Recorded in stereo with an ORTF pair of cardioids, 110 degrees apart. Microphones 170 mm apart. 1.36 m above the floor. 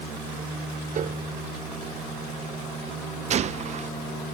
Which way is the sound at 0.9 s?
55° right.